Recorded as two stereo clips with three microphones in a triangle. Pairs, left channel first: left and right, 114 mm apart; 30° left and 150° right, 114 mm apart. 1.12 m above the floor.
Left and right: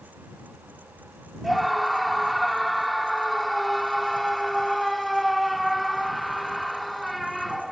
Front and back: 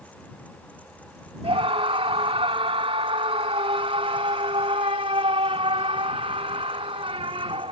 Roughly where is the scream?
Behind.